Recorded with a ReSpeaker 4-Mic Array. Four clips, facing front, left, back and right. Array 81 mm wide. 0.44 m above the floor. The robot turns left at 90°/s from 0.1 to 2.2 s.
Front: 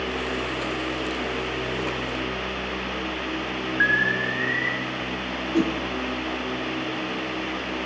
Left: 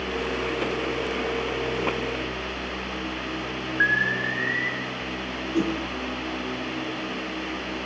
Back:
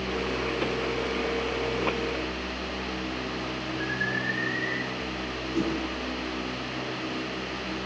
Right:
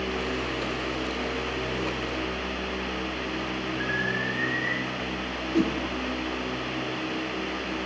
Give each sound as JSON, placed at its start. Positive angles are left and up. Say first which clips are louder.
{"t": 3.8, "sound": "an alarm", "louder": "left 8 dB, front 9 dB", "azimuth_deg": 35, "distance_m": 4.5}
{"t": 5.5, "sound": "a whoosh", "louder": "even, front 5 dB", "azimuth_deg": -25, "distance_m": 4.5}